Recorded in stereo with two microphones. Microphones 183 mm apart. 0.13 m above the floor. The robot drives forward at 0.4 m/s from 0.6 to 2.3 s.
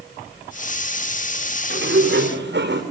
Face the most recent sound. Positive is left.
turn(degrees=-75)  # may be behind; listen again after turning